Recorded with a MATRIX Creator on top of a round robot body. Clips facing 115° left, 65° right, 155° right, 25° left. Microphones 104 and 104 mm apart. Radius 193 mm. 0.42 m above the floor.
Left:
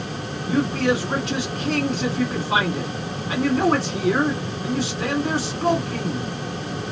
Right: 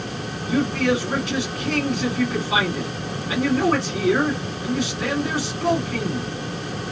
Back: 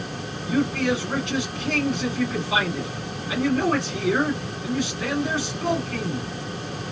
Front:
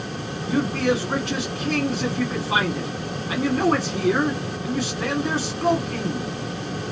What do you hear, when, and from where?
0.5 s a man speaking: 60° left, 1.9 m